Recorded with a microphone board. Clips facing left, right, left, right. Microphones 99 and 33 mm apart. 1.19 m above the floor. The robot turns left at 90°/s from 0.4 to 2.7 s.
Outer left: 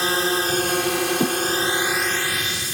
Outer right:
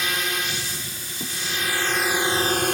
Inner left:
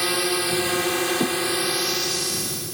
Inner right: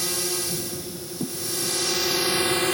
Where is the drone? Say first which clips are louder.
Outer left 6 dB, inner left 6 dB; 145° left; by 2.7 s 60° right.